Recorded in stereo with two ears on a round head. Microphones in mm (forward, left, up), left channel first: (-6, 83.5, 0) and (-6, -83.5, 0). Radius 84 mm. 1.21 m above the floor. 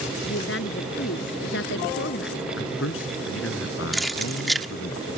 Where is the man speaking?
80° left.